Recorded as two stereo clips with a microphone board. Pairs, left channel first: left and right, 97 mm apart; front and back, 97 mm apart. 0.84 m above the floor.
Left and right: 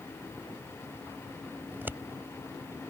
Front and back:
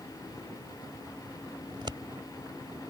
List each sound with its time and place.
1.7 s scissors: 155° right